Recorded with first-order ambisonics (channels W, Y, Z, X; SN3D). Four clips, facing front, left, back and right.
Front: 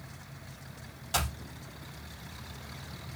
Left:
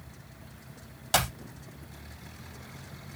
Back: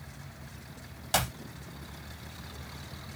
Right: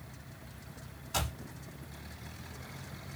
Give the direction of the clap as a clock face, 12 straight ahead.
8 o'clock.